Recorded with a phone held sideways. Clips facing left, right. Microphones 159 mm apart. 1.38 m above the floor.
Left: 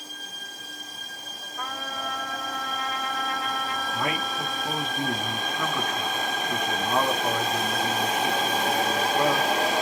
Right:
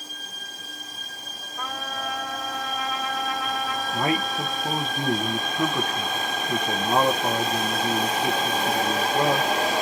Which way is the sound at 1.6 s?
10° right (ahead or behind).